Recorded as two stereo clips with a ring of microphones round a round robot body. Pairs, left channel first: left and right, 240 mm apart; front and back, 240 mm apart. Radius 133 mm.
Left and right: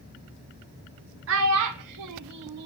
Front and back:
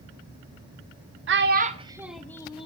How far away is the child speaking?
About 0.7 m.